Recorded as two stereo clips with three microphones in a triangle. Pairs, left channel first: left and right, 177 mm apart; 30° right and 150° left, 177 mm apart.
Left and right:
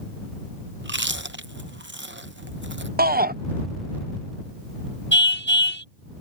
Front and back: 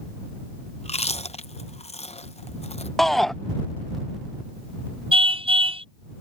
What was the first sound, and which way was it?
Chewing, 85° right.